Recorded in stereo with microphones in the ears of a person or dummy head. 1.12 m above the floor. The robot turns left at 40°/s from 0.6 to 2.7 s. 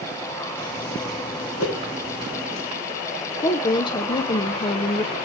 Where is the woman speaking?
30° left (ahead or behind), 0.6 m.